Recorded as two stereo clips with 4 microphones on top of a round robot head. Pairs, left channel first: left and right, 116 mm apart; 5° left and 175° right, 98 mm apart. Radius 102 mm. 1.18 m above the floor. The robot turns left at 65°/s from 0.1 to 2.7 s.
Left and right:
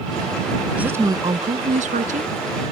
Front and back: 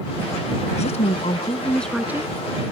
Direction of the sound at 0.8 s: 10° right.